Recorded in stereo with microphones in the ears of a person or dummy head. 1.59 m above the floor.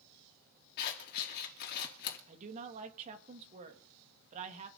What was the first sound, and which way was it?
Scissors, 55° left (ahead or behind).